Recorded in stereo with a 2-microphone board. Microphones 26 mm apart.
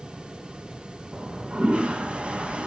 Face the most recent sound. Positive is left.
turn(degrees=-50)  # may be behind; listen again after turning